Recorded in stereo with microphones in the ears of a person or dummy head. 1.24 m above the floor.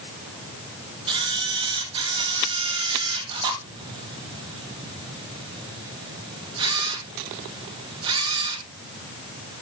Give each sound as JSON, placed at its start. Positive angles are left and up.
{"t": 1.1, "sound": "a camera shutter", "side_deg": -15, "distance_m": 1.1}